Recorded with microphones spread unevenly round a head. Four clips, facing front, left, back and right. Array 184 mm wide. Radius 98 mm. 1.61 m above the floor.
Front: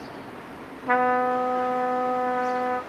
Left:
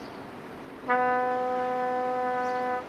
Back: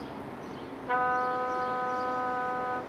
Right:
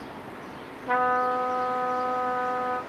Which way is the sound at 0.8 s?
5° left.